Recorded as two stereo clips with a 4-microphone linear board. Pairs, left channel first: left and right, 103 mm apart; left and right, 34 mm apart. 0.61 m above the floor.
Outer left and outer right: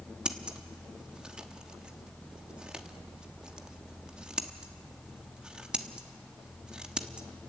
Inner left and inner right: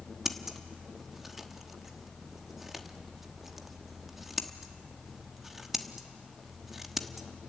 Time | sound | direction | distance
0.2 | scissors | 10° right (ahead or behind) | 1.1 m